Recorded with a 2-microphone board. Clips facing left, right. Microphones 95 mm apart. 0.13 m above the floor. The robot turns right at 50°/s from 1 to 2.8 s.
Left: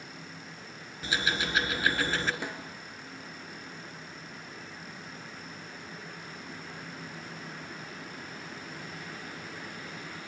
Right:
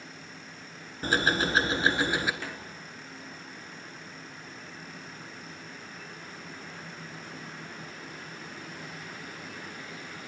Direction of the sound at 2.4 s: 15° left (ahead or behind).